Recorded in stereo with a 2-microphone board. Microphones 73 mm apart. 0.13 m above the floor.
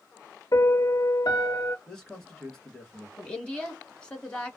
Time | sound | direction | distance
0.5 | a piano | 65° left (ahead or behind) | 0.6 m
1.9 | a man speaking | 10° left (ahead or behind) | 1.8 m
3.2 | a woman speaking | 15° left (ahead or behind) | 1.3 m